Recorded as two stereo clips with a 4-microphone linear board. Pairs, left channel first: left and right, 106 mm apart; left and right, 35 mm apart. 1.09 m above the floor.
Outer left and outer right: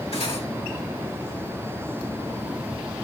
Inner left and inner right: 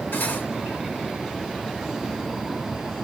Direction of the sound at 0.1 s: 80° left.